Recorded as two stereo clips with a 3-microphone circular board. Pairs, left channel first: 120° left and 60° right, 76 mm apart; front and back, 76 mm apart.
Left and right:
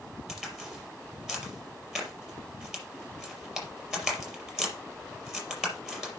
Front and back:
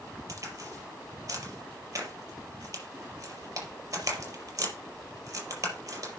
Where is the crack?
140° right, 4.5 m.